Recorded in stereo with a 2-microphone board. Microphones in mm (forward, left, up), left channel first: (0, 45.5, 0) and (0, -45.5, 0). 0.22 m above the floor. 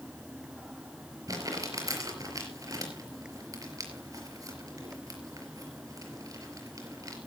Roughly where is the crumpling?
Right.